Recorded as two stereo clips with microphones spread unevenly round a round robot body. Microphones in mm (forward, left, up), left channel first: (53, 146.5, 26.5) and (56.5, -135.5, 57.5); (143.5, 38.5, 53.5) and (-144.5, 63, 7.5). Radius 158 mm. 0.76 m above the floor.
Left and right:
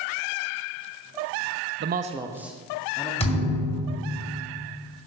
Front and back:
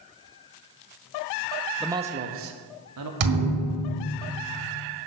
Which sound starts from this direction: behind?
A thud, at 3.2 s.